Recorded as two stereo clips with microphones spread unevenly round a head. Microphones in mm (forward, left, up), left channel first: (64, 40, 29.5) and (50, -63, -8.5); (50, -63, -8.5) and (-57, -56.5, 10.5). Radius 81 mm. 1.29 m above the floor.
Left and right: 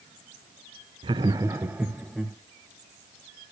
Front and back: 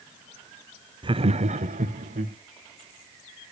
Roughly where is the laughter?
Behind right.